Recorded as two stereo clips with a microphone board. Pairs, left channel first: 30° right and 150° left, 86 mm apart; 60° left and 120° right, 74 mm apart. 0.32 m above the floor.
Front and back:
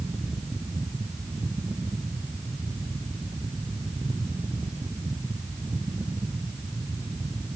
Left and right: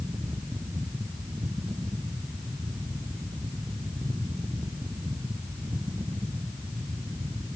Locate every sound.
Only background noise.